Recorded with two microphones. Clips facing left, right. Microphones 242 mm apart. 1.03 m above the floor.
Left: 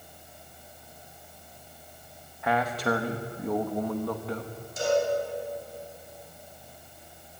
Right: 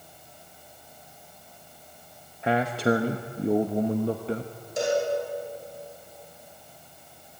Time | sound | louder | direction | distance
2.4 | a man speaking | right 4 dB | 25° right (ahead or behind) | 1.2 m
4.8 | a cowbell | even | 70° right (ahead or behind) | 7 m